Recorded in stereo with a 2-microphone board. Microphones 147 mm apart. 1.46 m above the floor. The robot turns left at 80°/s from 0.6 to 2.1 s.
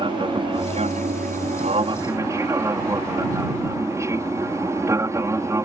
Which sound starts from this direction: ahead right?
An aircraft, at 0.0 s.